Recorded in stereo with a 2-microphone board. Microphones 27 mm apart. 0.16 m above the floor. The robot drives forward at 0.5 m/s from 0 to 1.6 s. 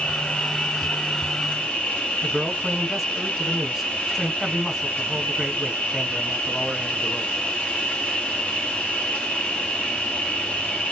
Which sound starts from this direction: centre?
A man speaking, at 2.2 s.